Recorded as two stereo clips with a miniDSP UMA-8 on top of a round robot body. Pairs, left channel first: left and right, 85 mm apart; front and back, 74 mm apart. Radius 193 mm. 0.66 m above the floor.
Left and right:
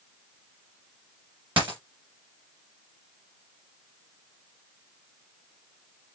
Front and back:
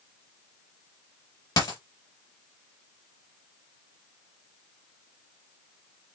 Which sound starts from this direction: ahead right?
A dropped coin, at 1.6 s.